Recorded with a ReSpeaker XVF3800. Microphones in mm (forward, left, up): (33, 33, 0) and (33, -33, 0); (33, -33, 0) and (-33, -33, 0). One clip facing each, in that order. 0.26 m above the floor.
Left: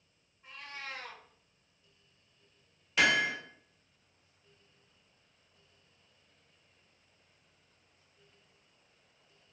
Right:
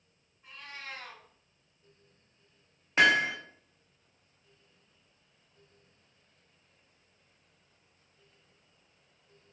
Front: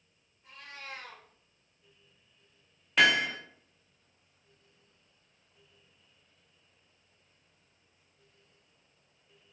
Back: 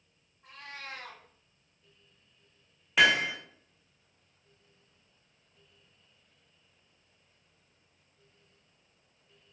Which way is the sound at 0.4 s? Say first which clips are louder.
Even, back 2 dB; 175° left.